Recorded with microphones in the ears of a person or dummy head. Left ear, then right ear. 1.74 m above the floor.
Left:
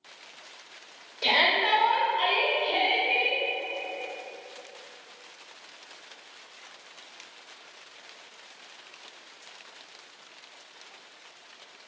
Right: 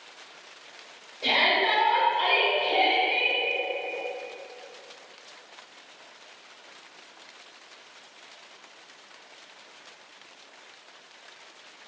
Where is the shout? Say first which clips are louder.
Even; 65° left (ahead or behind), 0.9 m; by 3.4 s 5° left (ahead or behind), 1.3 m.